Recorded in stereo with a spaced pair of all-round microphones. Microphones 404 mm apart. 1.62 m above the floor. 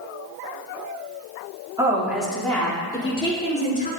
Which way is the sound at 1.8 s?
10° right (ahead or behind).